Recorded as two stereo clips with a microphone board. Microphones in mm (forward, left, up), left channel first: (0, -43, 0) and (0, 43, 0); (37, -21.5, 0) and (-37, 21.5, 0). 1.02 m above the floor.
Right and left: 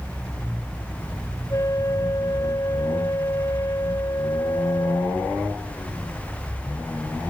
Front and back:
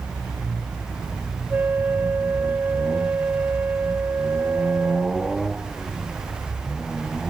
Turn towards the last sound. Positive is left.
turn(degrees=-140)